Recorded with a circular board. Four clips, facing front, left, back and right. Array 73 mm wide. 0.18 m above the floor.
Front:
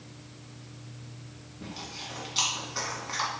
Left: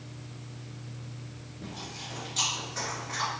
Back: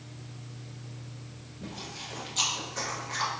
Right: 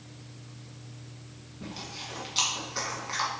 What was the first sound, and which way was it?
Chewing, 55° right.